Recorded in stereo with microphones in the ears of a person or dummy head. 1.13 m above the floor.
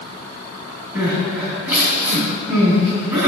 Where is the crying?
10° right (ahead or behind), 3 m.